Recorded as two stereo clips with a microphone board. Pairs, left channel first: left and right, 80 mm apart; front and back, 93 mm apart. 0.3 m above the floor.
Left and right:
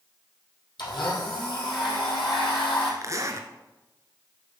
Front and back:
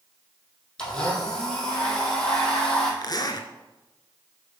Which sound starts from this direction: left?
A blender, at 0.8 s.